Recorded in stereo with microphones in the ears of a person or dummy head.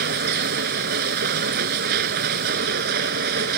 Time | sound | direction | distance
0.0 | a machine running | 60° right (ahead or behind) | ?